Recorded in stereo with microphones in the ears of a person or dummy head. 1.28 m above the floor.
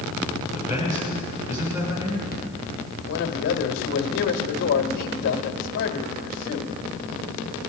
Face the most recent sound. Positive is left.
turn(degrees=65)  # may be behind; listen again after turning